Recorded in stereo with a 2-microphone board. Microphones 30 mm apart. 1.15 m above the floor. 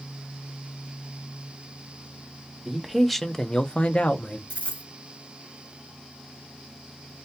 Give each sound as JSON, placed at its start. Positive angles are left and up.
{"t": 2.6, "sound": "a man speaking", "side_deg": -10, "distance_m": 0.8}
{"t": 4.5, "sound": "a dropped coin", "side_deg": 50, "distance_m": 1.7}